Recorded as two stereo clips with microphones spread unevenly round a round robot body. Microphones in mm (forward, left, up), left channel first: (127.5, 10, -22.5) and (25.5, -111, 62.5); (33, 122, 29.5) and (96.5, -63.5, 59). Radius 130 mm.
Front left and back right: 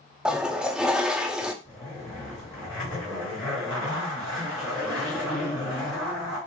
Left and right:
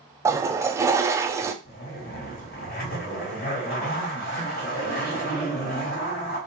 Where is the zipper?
90° left, 2 m.